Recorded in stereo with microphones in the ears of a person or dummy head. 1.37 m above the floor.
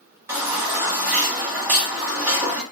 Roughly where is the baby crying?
Centre.